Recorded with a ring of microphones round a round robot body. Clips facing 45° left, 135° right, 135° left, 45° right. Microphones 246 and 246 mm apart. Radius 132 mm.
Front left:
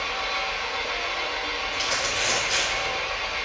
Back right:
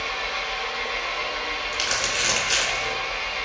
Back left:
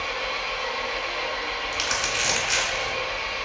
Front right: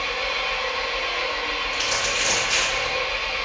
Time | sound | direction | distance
0.0 | an engine running | 20° left | 1.6 m
1.7 | crumpling | 165° left | 1.2 m